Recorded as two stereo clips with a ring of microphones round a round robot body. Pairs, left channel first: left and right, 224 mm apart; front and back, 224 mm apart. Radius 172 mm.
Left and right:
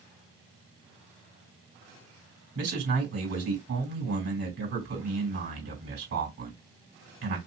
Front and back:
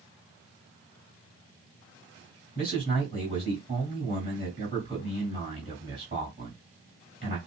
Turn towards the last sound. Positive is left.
turn(degrees=-110)